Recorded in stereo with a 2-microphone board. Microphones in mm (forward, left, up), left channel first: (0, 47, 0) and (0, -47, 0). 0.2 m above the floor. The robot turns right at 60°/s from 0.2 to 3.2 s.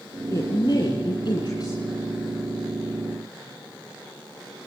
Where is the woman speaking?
40° left, 2.5 m; by 1.9 s 140° left, 2.5 m.